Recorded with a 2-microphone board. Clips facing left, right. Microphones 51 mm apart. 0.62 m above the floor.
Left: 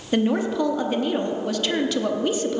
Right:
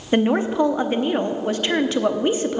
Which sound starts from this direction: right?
A woman speaking, at 0.1 s.